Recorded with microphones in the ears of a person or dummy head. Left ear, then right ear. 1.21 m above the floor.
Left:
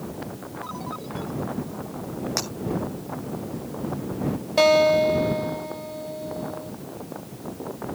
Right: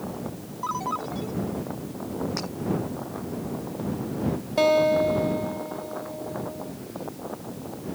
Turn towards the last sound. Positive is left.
turn(degrees=20)  # may be behind; listen again after turning